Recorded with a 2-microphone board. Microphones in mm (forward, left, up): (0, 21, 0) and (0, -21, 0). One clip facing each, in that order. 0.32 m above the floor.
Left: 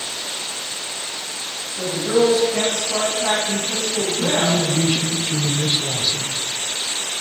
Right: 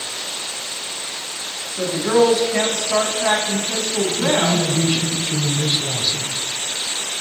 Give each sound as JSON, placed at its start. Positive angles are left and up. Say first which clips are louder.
{"t": 1.8, "sound": "a woman speaking", "louder": "right 2 dB", "side_deg": -55, "distance_m": 2.5}
{"t": 4.2, "sound": "a man speaking", "louder": "right 1 dB", "side_deg": 15, "distance_m": 0.8}